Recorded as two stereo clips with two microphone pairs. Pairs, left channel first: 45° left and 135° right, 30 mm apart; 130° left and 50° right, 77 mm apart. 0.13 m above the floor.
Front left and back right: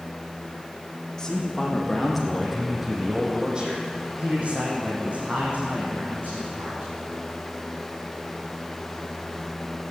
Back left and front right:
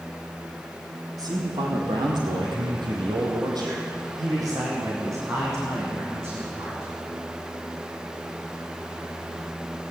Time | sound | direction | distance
1.2 | a man speaking | 30° right | 4.5 m